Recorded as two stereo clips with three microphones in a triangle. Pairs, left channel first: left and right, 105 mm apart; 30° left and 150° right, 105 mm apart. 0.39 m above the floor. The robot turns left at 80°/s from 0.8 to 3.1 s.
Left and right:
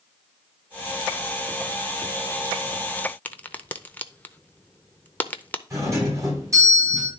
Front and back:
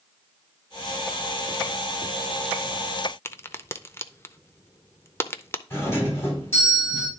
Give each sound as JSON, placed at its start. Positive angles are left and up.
{"t": 3.2, "sound": "a crack", "azimuth_deg": 40, "distance_m": 0.5}
{"t": 5.7, "sound": "a doorbell", "azimuth_deg": -35, "distance_m": 3.5}